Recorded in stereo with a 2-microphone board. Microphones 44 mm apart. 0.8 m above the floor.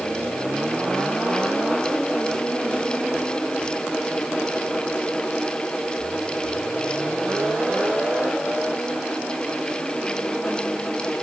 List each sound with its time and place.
Only background noise.